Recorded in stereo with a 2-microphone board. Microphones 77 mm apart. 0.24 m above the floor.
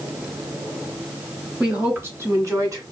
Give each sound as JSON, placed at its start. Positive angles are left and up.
{"t": 1.6, "sound": "a woman speaking", "side_deg": -10, "distance_m": 1.2}